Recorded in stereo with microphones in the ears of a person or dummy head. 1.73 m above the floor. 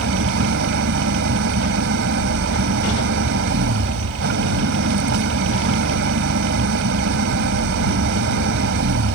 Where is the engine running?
55° right (ahead or behind).